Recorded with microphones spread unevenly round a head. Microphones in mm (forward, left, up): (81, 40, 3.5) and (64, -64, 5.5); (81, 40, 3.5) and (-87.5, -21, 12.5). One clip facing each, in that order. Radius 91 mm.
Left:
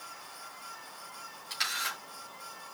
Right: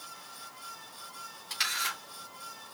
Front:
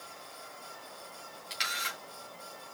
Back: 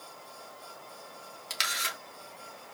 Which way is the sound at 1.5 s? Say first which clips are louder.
Right 1 dB, back 2 dB; 170° left.